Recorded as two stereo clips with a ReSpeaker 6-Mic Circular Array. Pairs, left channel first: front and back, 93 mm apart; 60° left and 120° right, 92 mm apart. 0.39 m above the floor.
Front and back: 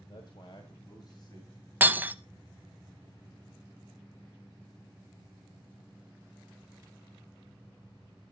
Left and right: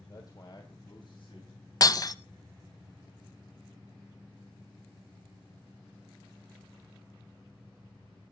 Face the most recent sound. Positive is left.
turn(degrees=110)